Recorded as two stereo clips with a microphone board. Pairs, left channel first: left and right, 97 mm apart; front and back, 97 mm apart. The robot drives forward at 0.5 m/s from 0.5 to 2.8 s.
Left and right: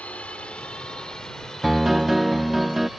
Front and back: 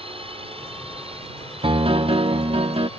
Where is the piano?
175° right.